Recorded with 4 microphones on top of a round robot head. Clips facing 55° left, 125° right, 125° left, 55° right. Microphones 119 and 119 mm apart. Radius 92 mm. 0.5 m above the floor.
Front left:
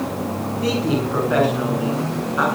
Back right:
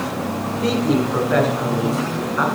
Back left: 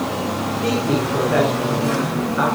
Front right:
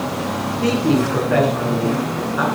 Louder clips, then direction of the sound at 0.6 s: Back right 2 dB, front right 4 dB; 30° right.